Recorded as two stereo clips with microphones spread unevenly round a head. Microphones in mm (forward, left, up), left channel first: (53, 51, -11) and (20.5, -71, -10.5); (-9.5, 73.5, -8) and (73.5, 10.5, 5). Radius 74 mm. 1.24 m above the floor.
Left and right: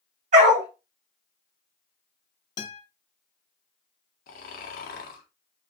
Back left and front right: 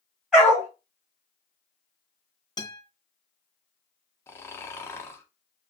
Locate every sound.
0.3 s a dog barking: 115° right, 1.5 m
2.6 s a guitar: 105° left, 1.2 m
4.3 s snoring: 75° left, 0.7 m